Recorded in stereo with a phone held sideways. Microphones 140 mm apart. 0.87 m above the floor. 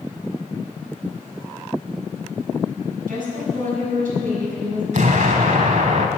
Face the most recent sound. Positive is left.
turn(degrees=-65)  # may be behind; listen again after turning